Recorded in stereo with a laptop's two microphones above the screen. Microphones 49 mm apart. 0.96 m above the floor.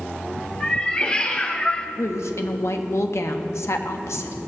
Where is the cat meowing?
20° left (ahead or behind), 1.7 m; by 1.9 s 25° left (ahead or behind), 0.8 m.